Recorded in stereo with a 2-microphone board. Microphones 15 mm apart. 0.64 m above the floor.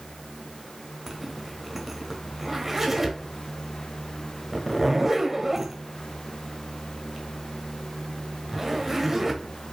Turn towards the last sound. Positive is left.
turn(degrees=-20)  # may be behind; listen again after turning